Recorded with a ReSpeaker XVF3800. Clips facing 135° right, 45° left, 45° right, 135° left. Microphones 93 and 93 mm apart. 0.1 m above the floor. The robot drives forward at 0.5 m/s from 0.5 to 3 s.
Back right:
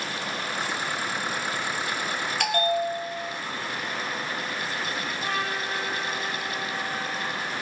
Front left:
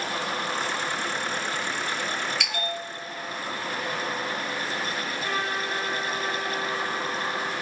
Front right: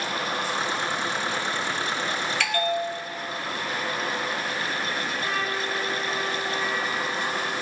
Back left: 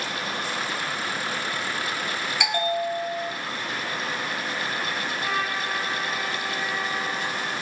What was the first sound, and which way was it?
A bell, 155° right.